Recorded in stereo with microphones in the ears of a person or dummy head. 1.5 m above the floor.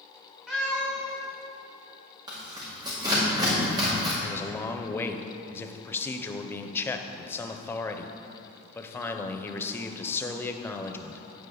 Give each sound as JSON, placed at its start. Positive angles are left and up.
{"t": 0.5, "sound": "a cat meowing", "side_deg": 0, "distance_m": 1.7}
{"t": 2.3, "sound": "tearing paper", "side_deg": -15, "distance_m": 2.0}
{"t": 4.2, "sound": "a man speaking", "side_deg": 10, "distance_m": 0.6}